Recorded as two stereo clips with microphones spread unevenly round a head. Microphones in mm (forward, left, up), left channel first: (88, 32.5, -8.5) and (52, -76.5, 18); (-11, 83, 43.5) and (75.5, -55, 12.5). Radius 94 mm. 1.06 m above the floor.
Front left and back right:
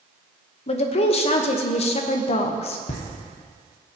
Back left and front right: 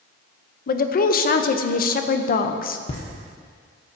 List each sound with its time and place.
0.7 s a woman speaking: 85° left, 0.7 m
2.9 s laughter: 70° left, 1.0 m